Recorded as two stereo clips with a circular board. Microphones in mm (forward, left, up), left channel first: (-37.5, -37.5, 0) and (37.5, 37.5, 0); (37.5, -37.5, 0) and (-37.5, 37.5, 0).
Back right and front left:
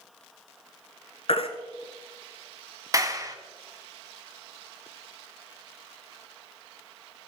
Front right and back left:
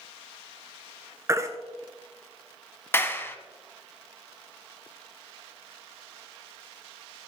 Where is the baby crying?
165° right, 1.2 m.